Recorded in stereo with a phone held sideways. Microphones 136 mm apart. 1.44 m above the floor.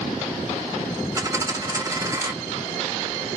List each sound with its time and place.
1.1 s a dropped coin: 25° right (ahead or behind), 0.7 m